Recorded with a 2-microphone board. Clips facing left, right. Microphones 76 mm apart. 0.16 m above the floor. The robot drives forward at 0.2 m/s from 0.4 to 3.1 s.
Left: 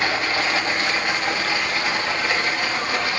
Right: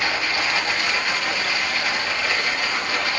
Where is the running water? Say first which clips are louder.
Left 2 dB; 30° left (ahead or behind), 3 m; by 3.2 s 25° left (ahead or behind), 3.5 m.